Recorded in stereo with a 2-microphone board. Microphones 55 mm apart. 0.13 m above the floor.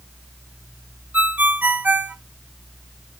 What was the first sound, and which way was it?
A ringtone, 30° right (ahead or behind).